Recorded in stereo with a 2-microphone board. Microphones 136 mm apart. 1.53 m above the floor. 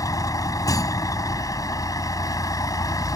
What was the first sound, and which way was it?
A vehicle, 25° left (ahead or behind).